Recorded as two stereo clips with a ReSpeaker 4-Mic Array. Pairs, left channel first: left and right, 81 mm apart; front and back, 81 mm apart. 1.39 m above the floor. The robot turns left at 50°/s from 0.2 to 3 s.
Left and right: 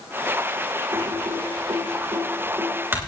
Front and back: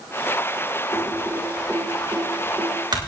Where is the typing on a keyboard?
55° right, 3 m; by 3.0 s 155° right, 3 m.